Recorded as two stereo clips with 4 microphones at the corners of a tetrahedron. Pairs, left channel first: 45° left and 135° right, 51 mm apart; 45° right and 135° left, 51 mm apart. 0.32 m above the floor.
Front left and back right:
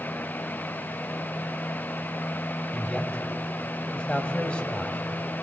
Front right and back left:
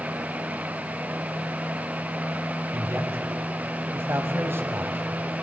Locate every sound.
2.7 s a man speaking: 110° left, 2.0 m